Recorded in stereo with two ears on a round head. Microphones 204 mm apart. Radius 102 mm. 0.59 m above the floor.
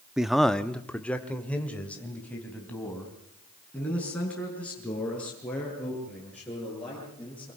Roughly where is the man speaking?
Centre.